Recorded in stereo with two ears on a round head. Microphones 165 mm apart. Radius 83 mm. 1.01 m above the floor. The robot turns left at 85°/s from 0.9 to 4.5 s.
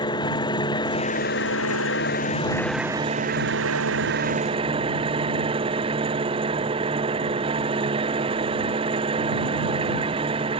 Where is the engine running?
155° left; by 10.6 s 150° right.